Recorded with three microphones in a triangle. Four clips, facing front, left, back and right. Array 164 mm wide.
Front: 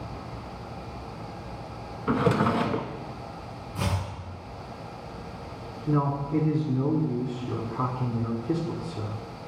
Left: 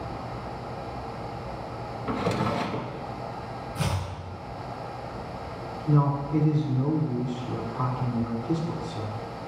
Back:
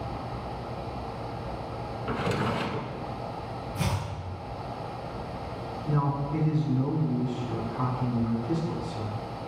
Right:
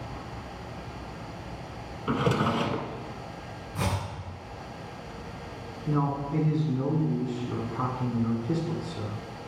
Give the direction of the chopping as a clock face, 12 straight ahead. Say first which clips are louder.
Right 1 dB, front 2 dB; 2 o'clock.